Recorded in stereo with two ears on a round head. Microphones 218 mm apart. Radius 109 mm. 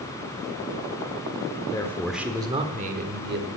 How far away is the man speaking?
About 0.9 m.